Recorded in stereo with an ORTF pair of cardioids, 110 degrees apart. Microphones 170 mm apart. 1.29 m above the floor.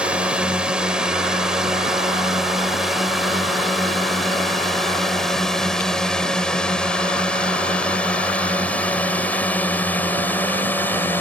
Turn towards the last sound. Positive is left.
turn(degrees=10)